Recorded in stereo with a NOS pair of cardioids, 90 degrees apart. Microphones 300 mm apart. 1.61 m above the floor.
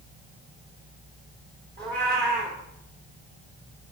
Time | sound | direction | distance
1.8 | a cat meowing | 35° right | 2.5 m